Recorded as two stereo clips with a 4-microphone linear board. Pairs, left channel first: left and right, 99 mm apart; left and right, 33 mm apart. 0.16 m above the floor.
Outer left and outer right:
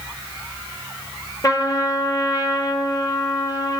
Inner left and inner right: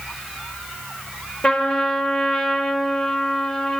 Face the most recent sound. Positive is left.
turn(degrees=35)  # may be behind; listen again after turning